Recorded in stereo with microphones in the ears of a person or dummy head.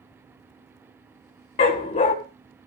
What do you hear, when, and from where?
1.6 s a dog barking: 35° left (ahead or behind), 1.4 m